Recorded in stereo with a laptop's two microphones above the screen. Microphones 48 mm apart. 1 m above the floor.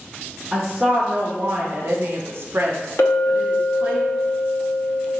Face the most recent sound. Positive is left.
turn(degrees=55)  # may be behind; listen again after turning